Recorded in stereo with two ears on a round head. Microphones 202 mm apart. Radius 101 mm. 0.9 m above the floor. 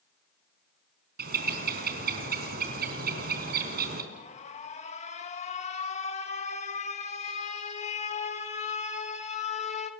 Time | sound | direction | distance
1.2 | a bird | 45° right (ahead or behind) | 4 m
4.1 | an alarm | 30° left (ahead or behind) | 1.5 m